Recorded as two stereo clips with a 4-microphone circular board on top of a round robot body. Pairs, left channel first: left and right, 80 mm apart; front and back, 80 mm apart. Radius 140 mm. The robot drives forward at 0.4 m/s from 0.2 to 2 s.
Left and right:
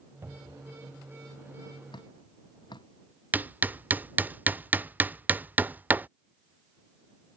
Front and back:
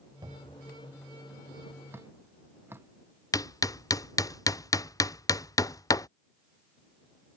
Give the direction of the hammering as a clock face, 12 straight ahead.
1 o'clock.